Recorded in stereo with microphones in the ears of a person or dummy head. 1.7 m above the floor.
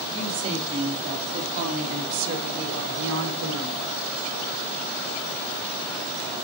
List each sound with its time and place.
0.1 s a woman speaking: 30° right (ahead or behind), 4.5 m; by 3.8 s 80° right, 2 m